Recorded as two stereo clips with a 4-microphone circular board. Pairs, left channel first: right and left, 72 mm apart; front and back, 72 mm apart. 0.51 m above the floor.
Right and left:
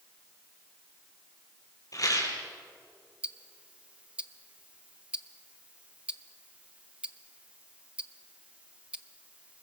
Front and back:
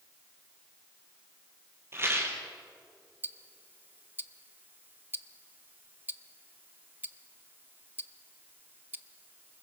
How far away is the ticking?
About 0.6 m.